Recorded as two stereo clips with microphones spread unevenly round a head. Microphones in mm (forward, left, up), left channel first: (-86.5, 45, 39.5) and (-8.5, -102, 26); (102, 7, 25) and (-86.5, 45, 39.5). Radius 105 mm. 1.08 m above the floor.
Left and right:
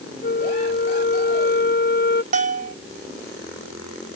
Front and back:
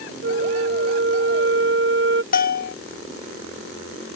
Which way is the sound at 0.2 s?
145° left.